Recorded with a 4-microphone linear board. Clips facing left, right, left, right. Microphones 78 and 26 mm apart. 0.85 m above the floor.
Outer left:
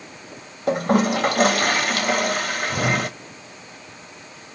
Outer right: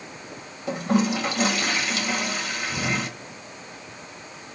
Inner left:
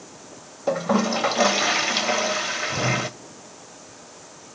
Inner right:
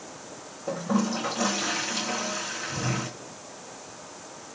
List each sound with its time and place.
0.7 s a toilet flushing: 55° left (ahead or behind), 1.2 m